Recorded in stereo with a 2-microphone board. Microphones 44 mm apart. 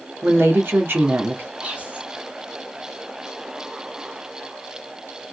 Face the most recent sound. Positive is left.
turn(degrees=-35)  # may be behind; listen again after turning